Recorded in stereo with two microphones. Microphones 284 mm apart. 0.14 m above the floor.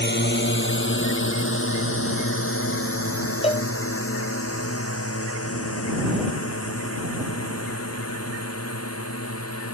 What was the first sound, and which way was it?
A drone, 40° left (ahead or behind).